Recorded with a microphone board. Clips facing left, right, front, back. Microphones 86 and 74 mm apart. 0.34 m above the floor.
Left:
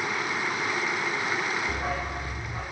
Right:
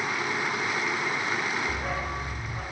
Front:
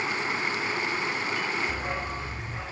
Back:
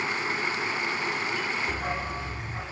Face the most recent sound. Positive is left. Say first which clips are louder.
# left 1 dB, back 1 dB
turn(degrees=125)